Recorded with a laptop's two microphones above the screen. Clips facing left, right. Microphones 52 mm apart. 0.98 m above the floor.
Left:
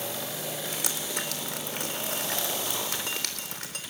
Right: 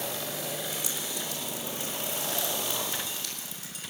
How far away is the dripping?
About 3.5 m.